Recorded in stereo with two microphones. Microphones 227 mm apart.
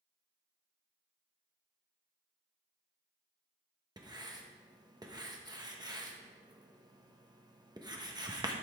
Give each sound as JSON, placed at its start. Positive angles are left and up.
{"t": 4.0, "sound": "writing", "side_deg": -20, "distance_m": 1.0}